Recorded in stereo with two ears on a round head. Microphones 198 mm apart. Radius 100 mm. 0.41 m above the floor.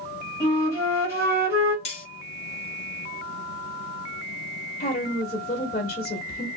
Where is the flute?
15° right (ahead or behind), 1.7 m.